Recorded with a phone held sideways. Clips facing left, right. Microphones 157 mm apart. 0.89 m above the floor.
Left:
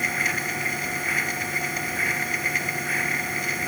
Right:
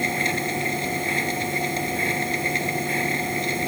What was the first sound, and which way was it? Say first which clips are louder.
A machine running: right 5 dB; 25° right (ahead or behind).